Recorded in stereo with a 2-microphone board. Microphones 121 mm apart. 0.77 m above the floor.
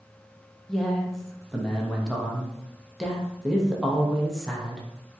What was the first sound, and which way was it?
A man speaking, centre (ahead or behind).